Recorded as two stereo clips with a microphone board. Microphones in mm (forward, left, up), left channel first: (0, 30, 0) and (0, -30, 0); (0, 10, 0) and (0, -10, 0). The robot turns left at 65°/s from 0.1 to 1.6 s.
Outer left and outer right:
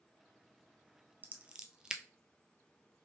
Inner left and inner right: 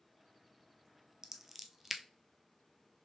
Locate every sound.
1.2 s scissors: 35° right (ahead or behind), 0.5 m; by 2.0 s 15° right (ahead or behind), 0.5 m